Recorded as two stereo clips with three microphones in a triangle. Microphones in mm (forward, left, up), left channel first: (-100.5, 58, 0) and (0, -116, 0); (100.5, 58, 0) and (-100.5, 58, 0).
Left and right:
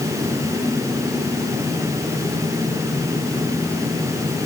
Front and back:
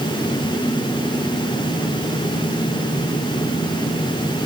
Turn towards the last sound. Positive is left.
No sound to turn to.